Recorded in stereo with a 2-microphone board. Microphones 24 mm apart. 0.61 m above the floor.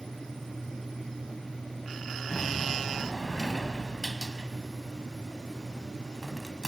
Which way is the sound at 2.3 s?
10° left (ahead or behind).